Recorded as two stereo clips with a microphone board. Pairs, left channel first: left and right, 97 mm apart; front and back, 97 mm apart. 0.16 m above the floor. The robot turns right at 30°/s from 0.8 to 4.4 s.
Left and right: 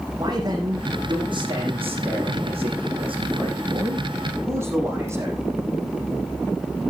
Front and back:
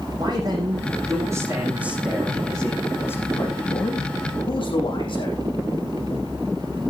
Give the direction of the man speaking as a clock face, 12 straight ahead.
5 o'clock.